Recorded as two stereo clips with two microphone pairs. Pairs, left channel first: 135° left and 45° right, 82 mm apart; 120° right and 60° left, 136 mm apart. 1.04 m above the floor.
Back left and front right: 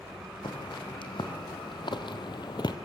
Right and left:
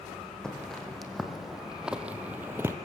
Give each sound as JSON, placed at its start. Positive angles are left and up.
{"t": 0.4, "sound": "footsteps", "azimuth_deg": 155, "distance_m": 3.5}